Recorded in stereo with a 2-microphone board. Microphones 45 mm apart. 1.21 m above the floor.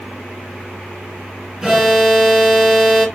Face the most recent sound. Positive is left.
turn(degrees=-10)  # may be behind; listen again after turning